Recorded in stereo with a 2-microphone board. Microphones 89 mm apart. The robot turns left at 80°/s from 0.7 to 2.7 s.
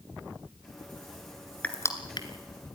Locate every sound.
1.6 s crushing: 15° left (ahead or behind), 1.9 m; by 2.3 s 60° left (ahead or behind), 1.9 m